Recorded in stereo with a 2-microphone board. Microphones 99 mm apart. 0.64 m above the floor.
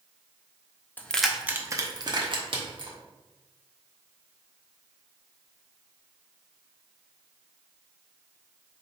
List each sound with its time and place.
1.0 s keys jangling: 15° left (ahead or behind), 0.6 m; by 3.0 s 65° right (ahead or behind), 1.3 m